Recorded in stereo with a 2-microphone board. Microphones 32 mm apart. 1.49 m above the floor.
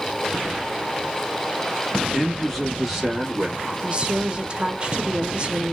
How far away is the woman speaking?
About 0.6 m.